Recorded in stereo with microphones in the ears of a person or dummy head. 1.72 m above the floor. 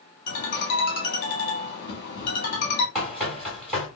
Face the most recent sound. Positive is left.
turn(degrees=10)  # may be behind; listen again after turning